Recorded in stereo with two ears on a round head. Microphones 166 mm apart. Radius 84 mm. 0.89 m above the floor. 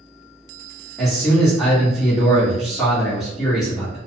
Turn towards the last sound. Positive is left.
turn(degrees=0)  # may be behind; listen again after turning